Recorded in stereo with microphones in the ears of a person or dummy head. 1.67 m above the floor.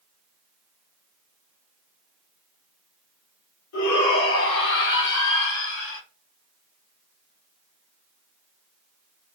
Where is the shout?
80° left, 3.5 m; by 6.0 s 75° left (ahead or behind), 5.5 m.